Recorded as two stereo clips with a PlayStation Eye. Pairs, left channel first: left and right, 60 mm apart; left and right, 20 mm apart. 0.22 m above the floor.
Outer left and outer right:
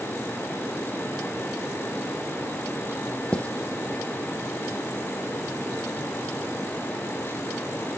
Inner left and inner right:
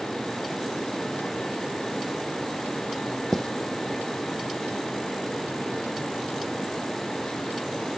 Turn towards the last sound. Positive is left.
turn(degrees=20)  # may be behind; listen again after turning